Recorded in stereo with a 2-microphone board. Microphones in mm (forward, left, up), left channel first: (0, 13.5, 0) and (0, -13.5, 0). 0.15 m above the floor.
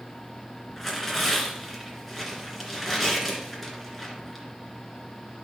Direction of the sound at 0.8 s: 5° left (ahead or behind).